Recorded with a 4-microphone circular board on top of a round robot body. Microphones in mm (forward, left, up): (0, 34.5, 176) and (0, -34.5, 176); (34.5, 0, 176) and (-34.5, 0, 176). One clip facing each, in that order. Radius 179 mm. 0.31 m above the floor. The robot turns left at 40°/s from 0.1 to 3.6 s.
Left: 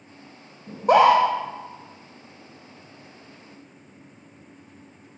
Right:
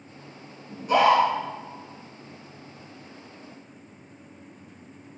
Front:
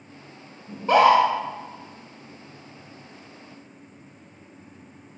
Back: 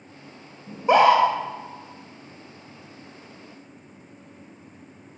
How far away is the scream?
About 1.9 m.